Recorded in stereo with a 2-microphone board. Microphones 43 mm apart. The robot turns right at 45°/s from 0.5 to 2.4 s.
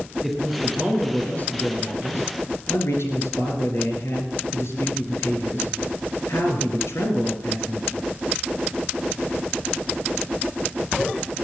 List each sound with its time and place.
0.2 s a man speaking: straight ahead, 4.5 m; by 8.0 s 85° left, 4.5 m